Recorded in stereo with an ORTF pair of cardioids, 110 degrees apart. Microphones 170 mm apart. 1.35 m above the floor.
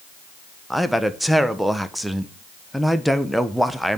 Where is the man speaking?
Straight ahead, 1.1 m.